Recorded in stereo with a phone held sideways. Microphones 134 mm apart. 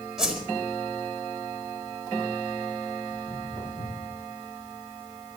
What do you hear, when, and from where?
0.2 s a whoosh: 5° right (ahead or behind), 4.5 m
3.1 s footsteps: 20° left (ahead or behind), 9.5 m